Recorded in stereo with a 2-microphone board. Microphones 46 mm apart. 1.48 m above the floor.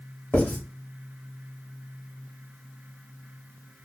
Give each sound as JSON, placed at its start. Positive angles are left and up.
{"t": 0.3, "sound": "writing", "side_deg": 40, "distance_m": 2.5}